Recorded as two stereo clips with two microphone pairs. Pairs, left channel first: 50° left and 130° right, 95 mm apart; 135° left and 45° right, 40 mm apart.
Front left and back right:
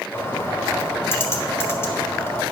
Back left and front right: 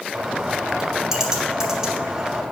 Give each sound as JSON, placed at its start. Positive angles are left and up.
{"t": 0.1, "sound": "a bird", "azimuth_deg": 20, "distance_m": 1.4}